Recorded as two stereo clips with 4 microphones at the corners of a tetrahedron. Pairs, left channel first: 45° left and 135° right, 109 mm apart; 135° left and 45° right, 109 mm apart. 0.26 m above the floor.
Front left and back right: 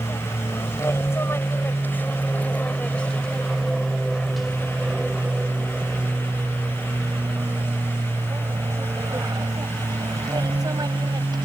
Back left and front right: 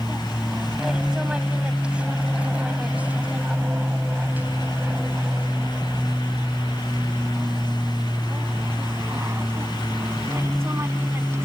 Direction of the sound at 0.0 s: 35° left.